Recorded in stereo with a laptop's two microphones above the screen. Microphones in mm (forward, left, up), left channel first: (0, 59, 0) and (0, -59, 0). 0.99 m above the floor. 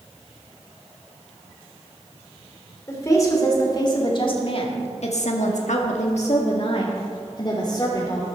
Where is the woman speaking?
25° left (ahead or behind), 2.5 m; by 8.3 s 30° left (ahead or behind), 2.5 m.